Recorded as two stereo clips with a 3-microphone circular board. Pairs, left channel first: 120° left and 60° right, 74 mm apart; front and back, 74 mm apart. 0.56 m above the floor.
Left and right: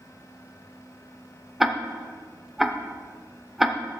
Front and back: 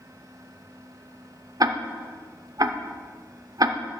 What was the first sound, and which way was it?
Ticking, 145° right.